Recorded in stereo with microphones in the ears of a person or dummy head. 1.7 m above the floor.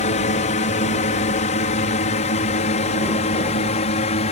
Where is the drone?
35° left (ahead or behind); by 4.3 s 30° left (ahead or behind).